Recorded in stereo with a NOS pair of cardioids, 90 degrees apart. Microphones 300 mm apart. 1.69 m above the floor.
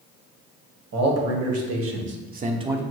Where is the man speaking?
65° right, 1.2 m; by 2.8 s 5° right, 0.5 m.